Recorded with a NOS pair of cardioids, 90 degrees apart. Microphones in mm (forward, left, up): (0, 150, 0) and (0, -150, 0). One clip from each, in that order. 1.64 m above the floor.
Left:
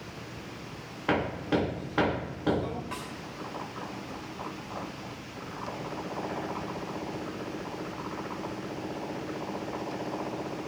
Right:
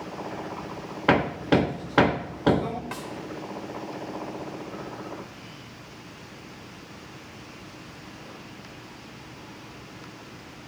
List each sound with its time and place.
1.1 s hammering: 45° right, 1.0 m
2.9 s a snare drum: 45° right, 4 m